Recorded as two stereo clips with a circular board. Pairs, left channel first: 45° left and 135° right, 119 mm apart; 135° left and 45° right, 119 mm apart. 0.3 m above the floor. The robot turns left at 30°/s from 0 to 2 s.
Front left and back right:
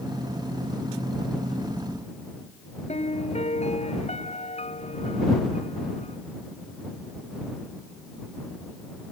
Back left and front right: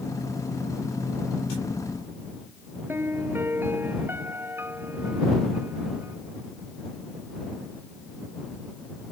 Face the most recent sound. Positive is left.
turn(degrees=25)